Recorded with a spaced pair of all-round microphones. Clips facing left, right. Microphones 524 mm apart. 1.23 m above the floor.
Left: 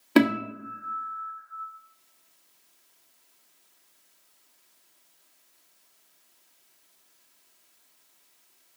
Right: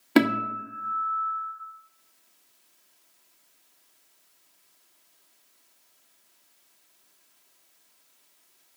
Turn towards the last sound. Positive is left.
turn(degrees=-5)  # may be behind; listen again after turning